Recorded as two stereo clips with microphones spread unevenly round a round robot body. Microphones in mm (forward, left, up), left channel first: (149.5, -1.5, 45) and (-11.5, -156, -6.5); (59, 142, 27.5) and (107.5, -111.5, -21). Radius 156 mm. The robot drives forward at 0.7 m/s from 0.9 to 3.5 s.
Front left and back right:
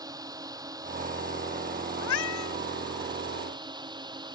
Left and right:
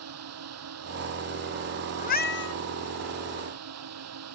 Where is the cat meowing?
40° left; by 2.5 s 65° left.